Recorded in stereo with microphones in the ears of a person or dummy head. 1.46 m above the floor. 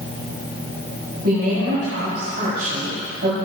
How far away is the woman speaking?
About 3 m.